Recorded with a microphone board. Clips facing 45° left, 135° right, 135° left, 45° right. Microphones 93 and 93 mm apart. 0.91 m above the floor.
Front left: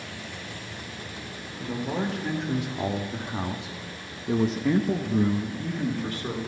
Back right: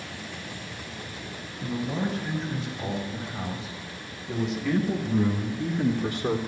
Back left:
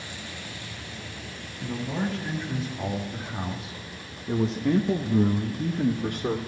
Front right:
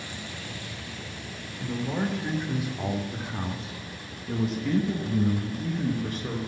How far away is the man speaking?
About 3.5 m.